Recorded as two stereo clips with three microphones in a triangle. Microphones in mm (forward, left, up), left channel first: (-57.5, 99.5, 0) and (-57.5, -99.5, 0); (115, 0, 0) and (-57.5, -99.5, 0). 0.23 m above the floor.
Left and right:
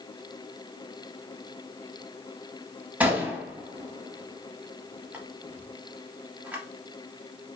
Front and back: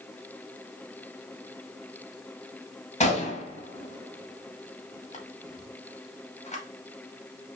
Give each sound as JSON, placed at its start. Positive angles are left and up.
{"t": 3.0, "sound": "a gunshot", "azimuth_deg": -10, "distance_m": 0.6}